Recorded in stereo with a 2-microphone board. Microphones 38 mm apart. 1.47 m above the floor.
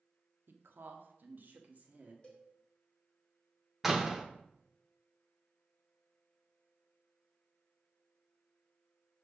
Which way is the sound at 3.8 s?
10° right (ahead or behind).